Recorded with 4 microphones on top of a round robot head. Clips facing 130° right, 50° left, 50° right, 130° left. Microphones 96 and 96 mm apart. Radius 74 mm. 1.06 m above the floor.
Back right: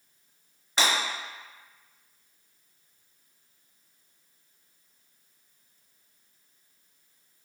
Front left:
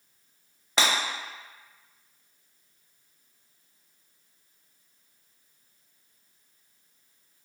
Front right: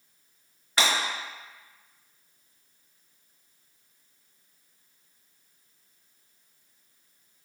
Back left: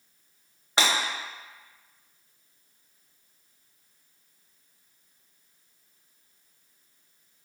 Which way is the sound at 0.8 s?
60° left.